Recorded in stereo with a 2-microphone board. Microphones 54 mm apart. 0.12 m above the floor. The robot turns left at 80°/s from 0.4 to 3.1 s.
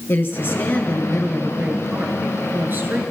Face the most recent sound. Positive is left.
turn(degrees=-145)